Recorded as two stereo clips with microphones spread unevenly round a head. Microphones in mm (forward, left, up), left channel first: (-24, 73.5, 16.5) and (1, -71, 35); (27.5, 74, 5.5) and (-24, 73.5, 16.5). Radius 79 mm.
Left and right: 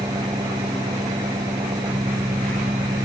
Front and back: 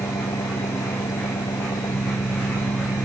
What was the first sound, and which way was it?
An engine running, 10° right.